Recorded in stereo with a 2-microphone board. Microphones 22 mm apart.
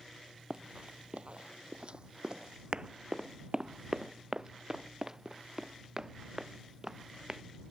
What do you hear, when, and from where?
0.5 s running footsteps: 30° right (ahead or behind)